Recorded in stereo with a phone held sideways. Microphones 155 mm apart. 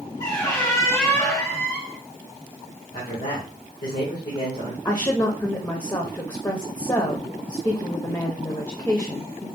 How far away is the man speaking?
About 1.5 m.